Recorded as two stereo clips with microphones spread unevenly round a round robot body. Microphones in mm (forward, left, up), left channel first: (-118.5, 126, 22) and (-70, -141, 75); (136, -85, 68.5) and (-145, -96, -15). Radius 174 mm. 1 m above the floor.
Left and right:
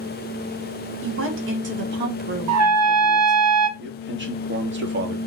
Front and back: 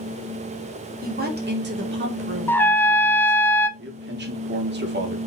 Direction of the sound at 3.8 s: 130° right.